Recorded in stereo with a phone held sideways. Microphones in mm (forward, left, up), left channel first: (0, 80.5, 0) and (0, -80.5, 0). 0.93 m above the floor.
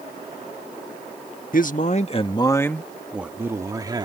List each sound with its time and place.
1.5 s a man speaking: 60° left (ahead or behind); by 4.0 s 25° right (ahead or behind)